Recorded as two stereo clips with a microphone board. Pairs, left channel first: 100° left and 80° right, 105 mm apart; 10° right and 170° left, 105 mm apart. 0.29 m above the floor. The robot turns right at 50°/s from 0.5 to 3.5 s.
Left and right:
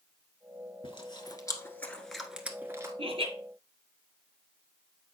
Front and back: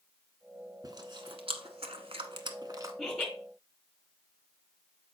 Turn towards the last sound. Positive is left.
turn(degrees=-75)